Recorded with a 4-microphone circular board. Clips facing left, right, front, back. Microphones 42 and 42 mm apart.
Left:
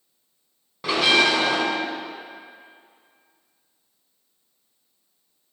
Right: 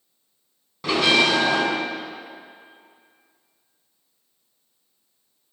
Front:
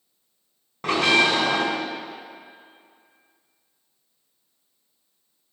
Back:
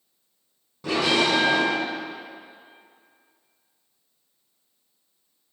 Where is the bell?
10° left, 3 m.